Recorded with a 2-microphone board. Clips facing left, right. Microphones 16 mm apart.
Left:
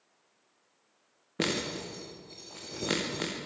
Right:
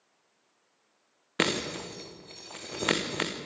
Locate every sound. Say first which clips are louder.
1.4 s breaking glass: right 3 dB; 75° right (ahead or behind), 4 m